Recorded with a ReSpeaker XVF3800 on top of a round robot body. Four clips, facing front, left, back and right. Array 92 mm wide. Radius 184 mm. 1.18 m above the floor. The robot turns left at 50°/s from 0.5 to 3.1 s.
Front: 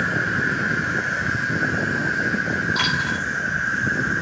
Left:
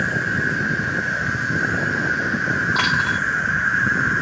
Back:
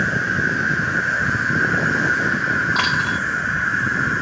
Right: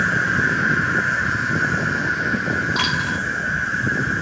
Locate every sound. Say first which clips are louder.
0.0 s an insect: right 3 dB, back 2 dB; 100° right, 1.0 m; by 4.2 s 130° left, 1.0 m
2.8 s a dropped coin: left 3 dB, back 3 dB; 130° left, 2 m; by 3.2 s 110° left, 2 m